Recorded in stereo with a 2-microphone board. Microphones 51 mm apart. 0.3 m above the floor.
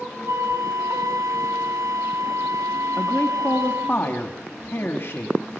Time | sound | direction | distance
0.3 | a flute | 80° right | 0.8 m
3.0 | a man speaking | 50° left (ahead or behind) | 3 m